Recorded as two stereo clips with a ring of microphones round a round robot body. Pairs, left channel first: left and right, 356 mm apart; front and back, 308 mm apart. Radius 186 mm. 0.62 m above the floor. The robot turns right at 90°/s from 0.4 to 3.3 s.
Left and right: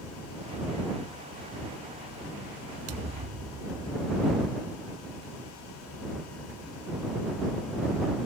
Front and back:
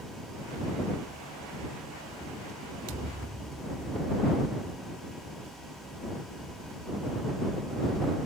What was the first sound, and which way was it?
A thud, 140° right.